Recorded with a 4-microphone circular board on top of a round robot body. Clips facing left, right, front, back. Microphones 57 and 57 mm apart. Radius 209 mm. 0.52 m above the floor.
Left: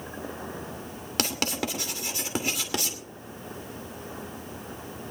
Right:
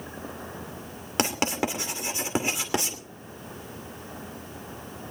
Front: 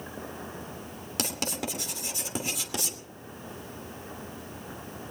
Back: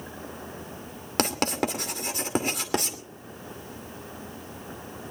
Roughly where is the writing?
Behind right.